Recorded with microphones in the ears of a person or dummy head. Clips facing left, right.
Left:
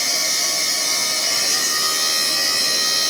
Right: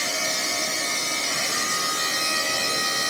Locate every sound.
0.0 s a machine running: 65° left (ahead or behind), 10 m